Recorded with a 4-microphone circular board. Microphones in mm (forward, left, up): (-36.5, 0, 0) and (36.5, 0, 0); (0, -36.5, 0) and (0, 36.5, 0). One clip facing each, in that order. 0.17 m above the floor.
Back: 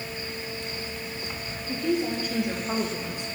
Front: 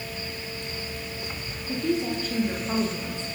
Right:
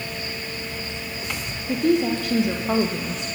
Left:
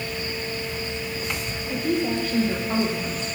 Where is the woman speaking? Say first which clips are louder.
Even, right 4 dB; 90° right, 6 m; by 3.3 s 105° right, 6.5 m.